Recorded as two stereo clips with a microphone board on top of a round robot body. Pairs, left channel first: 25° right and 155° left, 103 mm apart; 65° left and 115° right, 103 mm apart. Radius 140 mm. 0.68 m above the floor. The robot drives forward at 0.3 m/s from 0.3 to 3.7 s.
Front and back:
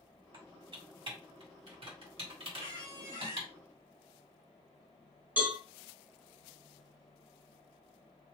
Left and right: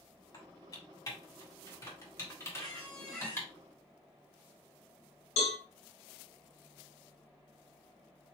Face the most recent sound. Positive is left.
turn(degrees=80)